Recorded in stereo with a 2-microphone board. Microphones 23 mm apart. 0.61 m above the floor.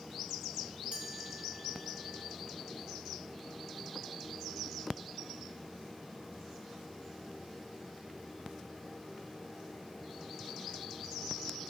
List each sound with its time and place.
0.9 s a chime: 40° right (ahead or behind), 3.5 m